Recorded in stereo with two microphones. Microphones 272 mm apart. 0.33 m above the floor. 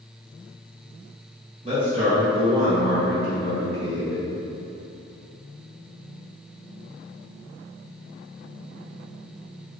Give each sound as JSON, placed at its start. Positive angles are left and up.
{"t": 1.6, "sound": "a man speaking", "side_deg": -25, "distance_m": 1.6}